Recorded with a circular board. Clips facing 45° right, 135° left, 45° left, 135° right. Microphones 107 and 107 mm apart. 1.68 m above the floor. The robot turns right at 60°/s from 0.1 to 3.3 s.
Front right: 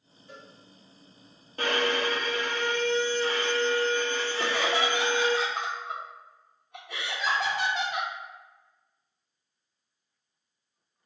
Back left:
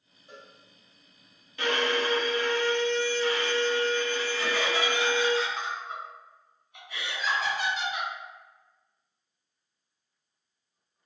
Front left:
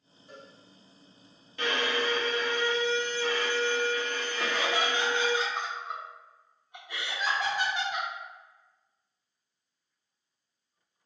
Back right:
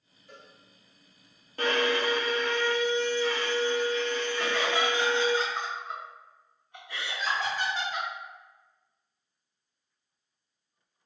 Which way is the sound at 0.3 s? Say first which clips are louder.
Front right 1 dB, front left 3 dB; 90° left.